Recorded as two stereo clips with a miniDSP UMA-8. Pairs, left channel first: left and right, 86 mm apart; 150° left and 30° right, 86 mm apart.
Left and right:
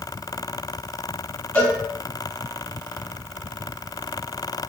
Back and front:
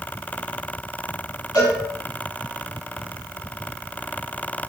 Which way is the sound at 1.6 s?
155° left.